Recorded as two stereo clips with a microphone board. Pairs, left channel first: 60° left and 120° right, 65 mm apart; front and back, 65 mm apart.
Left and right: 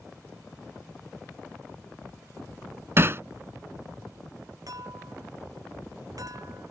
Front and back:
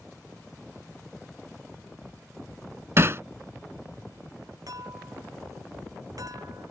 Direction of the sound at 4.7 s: 150° right.